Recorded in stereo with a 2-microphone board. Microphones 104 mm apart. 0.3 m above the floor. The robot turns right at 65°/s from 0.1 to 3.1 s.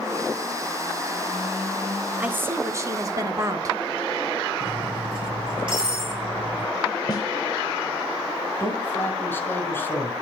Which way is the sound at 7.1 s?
40° left (ahead or behind).